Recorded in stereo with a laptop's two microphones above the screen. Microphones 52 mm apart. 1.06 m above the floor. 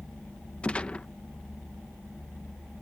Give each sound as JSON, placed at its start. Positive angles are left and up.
{"t": 0.6, "sound": "a gunshot", "side_deg": 25}